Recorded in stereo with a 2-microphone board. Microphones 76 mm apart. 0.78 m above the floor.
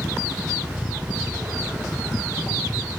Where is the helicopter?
50° left (ahead or behind).